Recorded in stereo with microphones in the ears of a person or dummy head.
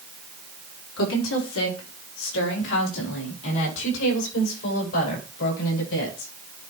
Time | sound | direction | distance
1.0 | a woman speaking | 85° left | 3.5 m